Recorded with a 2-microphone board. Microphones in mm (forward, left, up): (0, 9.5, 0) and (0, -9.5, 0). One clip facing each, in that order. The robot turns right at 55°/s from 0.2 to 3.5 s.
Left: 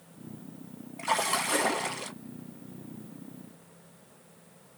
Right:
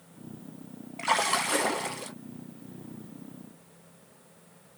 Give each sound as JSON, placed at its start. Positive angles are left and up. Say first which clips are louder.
{"t": 1.0, "sound": "a splash", "louder": "right 2 dB", "azimuth_deg": -35, "distance_m": 0.6}